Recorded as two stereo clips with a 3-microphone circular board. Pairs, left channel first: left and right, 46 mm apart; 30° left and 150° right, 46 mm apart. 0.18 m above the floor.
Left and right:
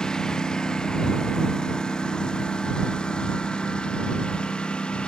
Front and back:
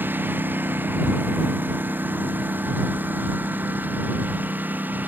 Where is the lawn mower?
165° left; by 5.1 s 160° left.